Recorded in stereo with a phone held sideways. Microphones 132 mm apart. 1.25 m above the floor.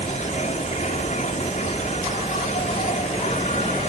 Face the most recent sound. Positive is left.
turn(degrees=65)  # may be behind; listen again after turning